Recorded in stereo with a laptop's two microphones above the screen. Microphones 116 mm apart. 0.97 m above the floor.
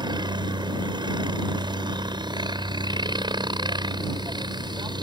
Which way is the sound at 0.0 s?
40° right (ahead or behind).